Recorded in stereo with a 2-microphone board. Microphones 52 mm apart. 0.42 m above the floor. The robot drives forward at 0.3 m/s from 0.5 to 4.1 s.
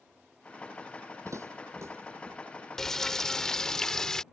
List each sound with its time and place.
1.2 s footsteps: 70° right (ahead or behind); by 2.4 s 50° right (ahead or behind)
2.8 s frying: 10° left (ahead or behind)